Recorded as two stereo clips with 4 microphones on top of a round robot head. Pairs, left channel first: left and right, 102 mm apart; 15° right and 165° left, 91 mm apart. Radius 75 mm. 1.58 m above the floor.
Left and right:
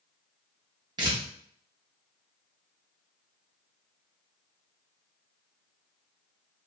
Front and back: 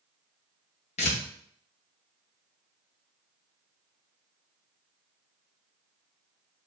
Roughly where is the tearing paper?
Ahead right.